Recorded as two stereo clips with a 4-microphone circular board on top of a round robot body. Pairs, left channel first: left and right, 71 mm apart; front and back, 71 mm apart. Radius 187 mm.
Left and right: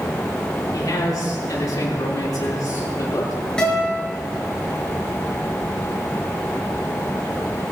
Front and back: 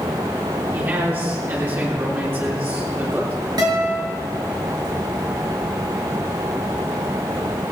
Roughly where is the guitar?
Behind.